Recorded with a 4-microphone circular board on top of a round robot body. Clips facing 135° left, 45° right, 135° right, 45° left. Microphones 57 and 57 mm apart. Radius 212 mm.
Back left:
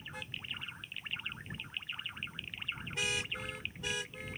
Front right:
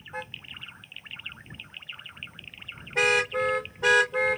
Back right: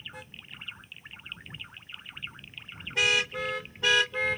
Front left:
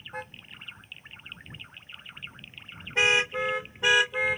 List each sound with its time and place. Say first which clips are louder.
0.1 s a car horn: front right 7 dB, front left 5 dB; straight ahead; by 4.4 s 35° right